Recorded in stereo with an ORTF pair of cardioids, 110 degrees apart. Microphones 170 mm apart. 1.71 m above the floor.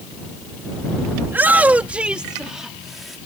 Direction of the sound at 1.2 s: 15° right.